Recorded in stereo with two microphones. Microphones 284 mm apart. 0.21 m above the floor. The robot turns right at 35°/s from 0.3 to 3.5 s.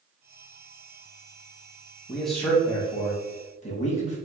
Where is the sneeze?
No sneeze in this recording.